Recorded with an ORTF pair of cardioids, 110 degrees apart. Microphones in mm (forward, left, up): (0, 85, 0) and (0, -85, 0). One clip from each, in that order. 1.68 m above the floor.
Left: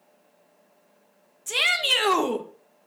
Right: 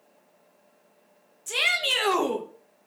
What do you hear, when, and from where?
1.5 s a shout: 15° left, 2.0 m